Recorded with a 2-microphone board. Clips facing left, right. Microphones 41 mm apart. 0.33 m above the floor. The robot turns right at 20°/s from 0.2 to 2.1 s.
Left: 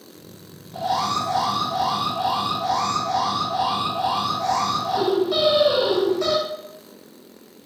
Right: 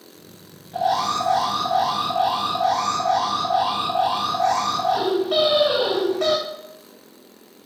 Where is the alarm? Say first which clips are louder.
Right 2 dB; 50° right (ahead or behind), 2.5 m; by 6.4 s 55° right (ahead or behind), 2.5 m.